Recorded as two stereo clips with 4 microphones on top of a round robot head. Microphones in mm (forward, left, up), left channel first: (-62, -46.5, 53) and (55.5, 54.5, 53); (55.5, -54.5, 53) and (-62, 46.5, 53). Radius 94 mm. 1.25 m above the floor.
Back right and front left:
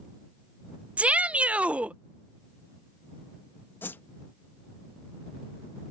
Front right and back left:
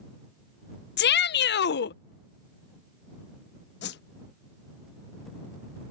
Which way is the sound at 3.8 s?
60° right.